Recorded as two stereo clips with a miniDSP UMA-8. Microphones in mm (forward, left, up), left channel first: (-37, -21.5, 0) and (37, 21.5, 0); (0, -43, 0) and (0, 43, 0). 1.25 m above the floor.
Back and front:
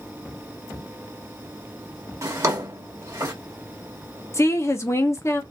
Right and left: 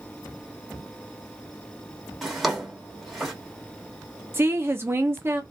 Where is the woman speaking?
155° left, 0.8 m.